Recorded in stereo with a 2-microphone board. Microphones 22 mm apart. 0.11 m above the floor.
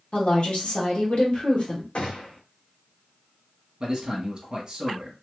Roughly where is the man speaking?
Right.